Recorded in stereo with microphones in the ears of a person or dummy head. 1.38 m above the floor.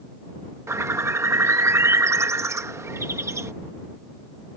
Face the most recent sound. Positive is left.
turn(degrees=-10)  # may be behind; listen again after turning